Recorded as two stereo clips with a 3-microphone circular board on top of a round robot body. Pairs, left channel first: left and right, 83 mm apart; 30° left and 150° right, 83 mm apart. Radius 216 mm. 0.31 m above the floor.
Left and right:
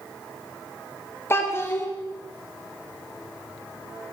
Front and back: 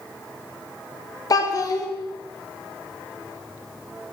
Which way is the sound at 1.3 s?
45° left.